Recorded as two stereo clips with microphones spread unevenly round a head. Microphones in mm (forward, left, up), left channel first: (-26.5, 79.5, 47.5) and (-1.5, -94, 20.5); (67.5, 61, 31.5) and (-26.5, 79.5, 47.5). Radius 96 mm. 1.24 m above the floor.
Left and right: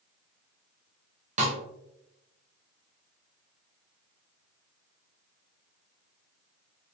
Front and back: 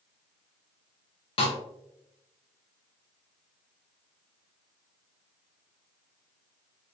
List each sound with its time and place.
1.4 s a snare drum: 30° right, 0.9 m